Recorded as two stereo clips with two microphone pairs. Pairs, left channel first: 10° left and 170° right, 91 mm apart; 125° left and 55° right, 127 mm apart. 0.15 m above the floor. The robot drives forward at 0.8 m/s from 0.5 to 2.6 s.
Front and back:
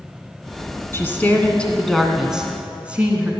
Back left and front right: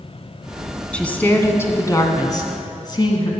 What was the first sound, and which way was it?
A woman speaking, 50° left.